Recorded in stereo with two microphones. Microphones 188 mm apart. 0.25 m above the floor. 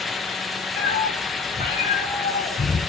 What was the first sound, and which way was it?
A cat meowing, 55° left (ahead or behind).